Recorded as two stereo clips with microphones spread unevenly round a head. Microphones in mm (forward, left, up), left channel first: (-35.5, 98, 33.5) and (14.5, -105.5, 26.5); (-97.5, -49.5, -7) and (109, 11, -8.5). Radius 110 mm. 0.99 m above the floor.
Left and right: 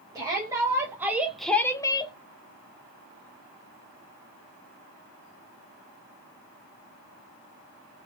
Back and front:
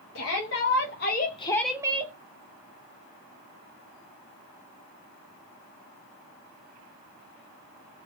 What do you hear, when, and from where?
0.1 s a shout: 145° right, 1.2 m; by 2.1 s 45° left, 0.6 m